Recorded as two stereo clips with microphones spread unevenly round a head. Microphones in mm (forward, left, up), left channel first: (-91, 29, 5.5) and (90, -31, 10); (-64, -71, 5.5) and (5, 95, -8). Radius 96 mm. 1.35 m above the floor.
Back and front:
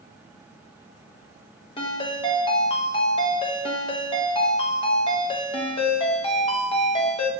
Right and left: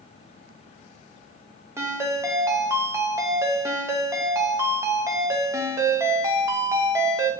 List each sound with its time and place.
1.8 s a ringtone: 135° left, 0.7 m